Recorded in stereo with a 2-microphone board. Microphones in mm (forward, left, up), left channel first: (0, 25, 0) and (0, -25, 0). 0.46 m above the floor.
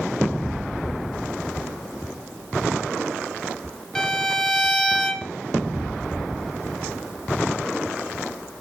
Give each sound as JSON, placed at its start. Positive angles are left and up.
{"t": 4.0, "sound": "a violin", "side_deg": 15, "distance_m": 0.6}